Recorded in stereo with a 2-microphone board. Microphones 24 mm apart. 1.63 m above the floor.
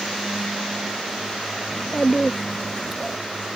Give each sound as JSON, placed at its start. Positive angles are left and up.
{"t": 1.7, "sound": "a child speaking", "side_deg": 35}